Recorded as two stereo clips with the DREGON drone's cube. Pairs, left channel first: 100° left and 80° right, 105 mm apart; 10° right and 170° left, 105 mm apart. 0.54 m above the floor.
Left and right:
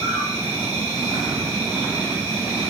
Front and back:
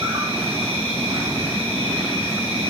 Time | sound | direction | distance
0.0 | an insect | 145° left | 5 m